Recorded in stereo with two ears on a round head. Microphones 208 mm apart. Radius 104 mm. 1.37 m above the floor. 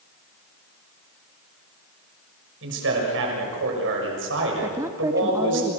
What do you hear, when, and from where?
2.6 s a man speaking: 55° right (ahead or behind), 6.5 m
4.6 s a woman speaking: 15° right (ahead or behind), 0.9 m